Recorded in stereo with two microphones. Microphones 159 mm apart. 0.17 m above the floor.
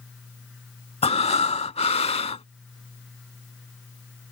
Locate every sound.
1.0 s breathing: 40° left (ahead or behind)